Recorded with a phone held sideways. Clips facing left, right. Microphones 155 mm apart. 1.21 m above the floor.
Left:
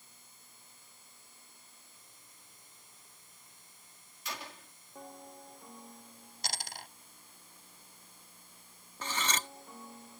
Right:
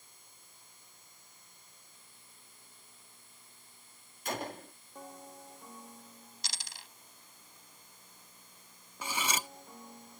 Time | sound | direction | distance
4.2 | a gunshot | 50° right (ahead or behind) | ?
6.4 | a dropped coin | 55° left (ahead or behind) | ?
9.0 | cutlery clinking | 10° right (ahead or behind) | ?